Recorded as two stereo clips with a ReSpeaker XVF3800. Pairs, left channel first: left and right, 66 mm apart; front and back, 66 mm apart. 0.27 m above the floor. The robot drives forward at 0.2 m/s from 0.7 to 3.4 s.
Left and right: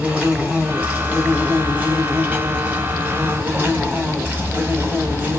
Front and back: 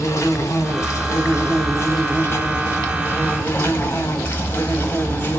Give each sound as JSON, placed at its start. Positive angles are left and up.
{"t": 0.0, "sound": "an insect", "azimuth_deg": -30, "distance_m": 1.6}